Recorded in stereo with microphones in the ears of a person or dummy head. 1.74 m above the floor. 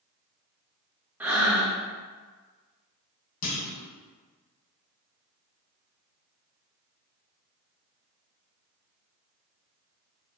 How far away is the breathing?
About 0.5 m.